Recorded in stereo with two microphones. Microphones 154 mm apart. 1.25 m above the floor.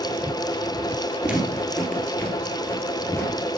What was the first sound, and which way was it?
Footsteps, 5° right (ahead or behind).